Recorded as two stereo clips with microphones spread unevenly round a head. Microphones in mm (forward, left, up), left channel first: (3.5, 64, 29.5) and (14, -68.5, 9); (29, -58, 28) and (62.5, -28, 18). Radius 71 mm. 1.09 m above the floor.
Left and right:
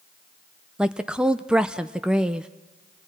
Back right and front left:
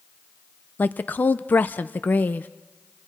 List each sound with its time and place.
0.8 s a woman speaking: 145° right, 0.6 m